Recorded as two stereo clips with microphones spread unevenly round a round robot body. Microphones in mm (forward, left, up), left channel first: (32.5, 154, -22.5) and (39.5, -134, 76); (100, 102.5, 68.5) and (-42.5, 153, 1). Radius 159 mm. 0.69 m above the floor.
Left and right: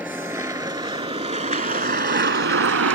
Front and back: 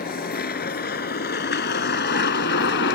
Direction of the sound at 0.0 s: 5° right.